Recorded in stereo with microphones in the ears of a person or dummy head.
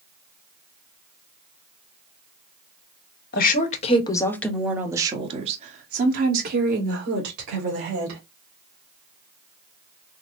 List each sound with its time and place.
3.3 s a woman speaking: 50° left (ahead or behind), 1.2 m; by 8.2 s 65° right (ahead or behind), 3 m